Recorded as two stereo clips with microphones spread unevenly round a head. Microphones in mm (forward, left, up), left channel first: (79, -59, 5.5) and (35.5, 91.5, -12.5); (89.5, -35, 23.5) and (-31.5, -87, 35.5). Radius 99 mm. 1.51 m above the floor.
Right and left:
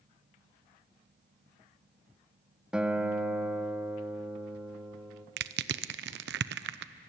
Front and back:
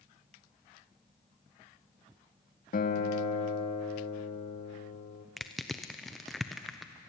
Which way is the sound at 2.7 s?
20° left.